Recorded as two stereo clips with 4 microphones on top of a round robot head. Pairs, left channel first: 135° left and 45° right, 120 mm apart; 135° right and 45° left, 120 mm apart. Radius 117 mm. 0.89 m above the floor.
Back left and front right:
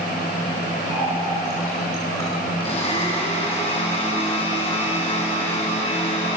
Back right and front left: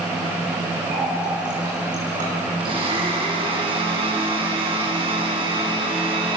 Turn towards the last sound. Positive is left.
turn(degrees=90)